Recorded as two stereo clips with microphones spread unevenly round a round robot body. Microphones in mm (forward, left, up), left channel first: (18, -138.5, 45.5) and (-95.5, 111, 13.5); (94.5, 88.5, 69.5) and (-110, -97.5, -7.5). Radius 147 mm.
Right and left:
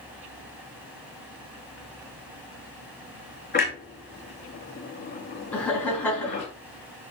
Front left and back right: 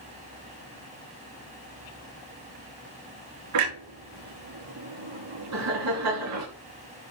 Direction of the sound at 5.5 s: 150° right.